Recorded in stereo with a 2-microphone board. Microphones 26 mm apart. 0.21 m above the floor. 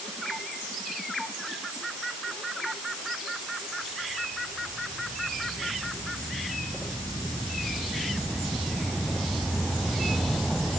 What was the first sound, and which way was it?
Only background noise.